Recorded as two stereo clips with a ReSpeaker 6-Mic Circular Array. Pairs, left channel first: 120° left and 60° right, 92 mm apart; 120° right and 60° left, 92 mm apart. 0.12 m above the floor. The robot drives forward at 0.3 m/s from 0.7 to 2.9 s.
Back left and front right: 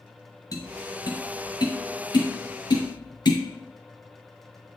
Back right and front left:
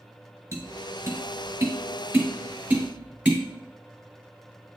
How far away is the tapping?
About 1.4 m.